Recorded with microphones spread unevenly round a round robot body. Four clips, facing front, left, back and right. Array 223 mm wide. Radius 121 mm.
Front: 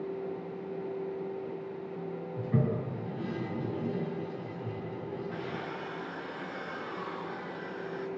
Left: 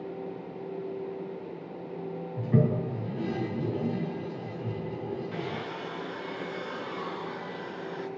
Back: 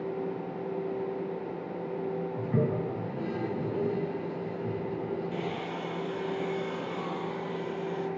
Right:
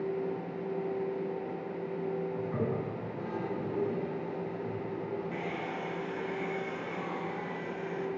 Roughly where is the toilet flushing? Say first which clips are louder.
Left 6 dB, back 1 dB; left.